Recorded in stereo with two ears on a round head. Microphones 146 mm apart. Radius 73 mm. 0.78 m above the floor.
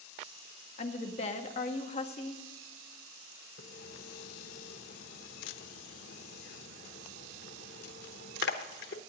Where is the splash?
70° left (ahead or behind), 1.1 m.